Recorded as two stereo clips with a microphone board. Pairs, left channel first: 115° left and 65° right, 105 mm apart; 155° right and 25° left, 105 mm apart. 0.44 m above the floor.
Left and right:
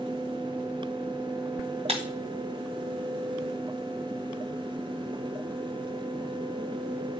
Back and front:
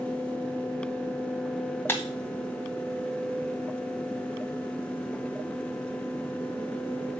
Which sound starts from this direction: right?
Breaking glass, at 1.9 s.